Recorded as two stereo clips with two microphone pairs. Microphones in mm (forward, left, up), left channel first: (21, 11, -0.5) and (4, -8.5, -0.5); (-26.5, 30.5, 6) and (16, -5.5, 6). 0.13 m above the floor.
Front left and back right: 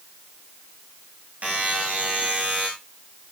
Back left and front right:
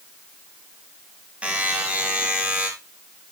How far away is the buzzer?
About 7 m.